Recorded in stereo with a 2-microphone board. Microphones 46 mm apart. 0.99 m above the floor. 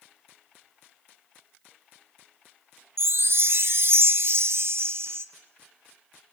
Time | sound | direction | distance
3.0 | a chime | 55° right (ahead or behind) | 0.8 m